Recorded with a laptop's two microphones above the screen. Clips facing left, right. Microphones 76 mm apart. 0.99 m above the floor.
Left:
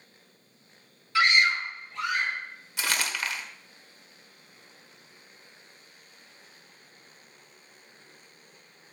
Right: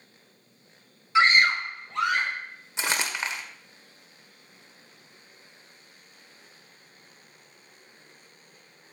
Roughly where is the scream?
Right.